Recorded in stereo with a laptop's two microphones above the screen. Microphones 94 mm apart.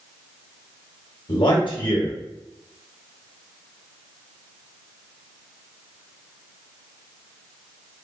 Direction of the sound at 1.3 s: 65° left (ahead or behind).